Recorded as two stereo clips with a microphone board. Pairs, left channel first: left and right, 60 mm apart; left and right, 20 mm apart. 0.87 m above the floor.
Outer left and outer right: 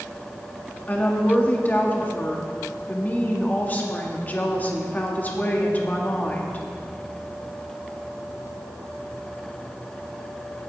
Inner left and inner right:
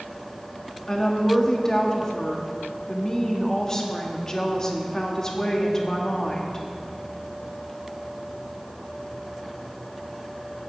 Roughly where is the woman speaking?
Left.